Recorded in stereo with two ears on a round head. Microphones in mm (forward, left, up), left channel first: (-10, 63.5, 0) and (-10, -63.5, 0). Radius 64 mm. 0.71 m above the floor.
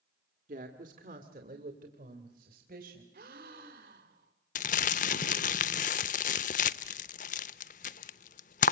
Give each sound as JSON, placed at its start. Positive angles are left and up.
{"t": 0.5, "sound": "a woman speaking", "side_deg": -60, "distance_m": 2.0}
{"t": 3.1, "sound": "a gasp", "side_deg": -65, "distance_m": 3.5}
{"t": 4.5, "sound": "crumpling", "side_deg": 55, "distance_m": 0.7}